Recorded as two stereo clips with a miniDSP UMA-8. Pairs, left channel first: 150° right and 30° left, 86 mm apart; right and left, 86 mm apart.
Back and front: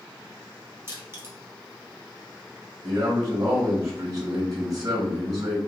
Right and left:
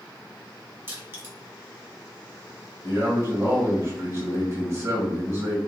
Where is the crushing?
55° left, 1.2 m.